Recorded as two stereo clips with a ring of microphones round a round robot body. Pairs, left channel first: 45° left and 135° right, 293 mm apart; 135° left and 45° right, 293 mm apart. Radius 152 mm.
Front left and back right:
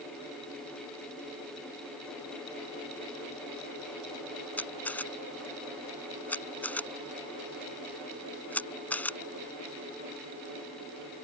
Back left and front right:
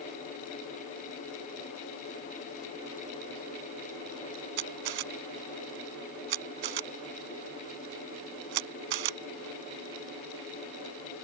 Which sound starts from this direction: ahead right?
A camera shutter, at 4.6 s.